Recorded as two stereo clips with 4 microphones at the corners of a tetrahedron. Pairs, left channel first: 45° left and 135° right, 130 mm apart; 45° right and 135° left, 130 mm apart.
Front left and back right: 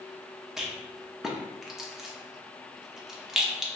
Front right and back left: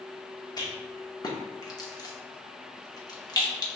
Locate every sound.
0.6 s a rattle: 50° right, 0.8 m